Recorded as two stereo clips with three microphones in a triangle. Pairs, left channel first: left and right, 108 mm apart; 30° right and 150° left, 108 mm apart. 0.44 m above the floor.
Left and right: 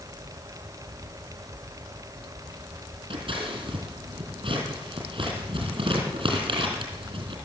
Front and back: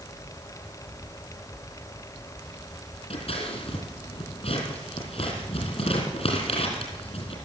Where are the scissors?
50° right, 3.5 m.